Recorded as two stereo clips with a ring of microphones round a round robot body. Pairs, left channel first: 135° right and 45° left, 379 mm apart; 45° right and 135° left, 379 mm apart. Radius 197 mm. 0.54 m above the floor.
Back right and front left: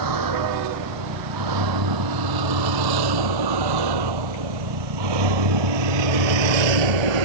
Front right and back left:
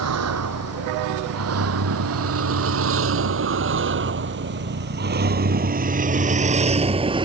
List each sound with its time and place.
0.0 s a vehicle: 85° left; by 7.2 s 55° left